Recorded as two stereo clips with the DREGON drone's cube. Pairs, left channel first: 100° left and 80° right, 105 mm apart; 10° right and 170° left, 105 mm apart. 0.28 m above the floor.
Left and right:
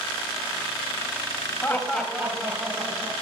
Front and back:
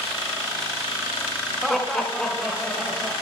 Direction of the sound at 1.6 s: 75° left.